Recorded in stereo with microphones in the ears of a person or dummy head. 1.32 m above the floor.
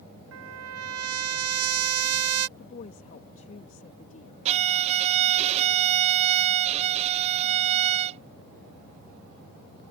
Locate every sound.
0.3 s a trumpet: 75° right (ahead or behind)
2.6 s a woman speaking: 40° left (ahead or behind)
4.5 s a violin: 35° right (ahead or behind)